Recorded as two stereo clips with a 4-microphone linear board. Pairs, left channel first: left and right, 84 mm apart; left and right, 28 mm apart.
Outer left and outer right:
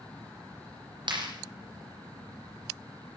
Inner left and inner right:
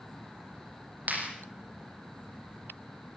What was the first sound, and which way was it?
A clap, 80° right.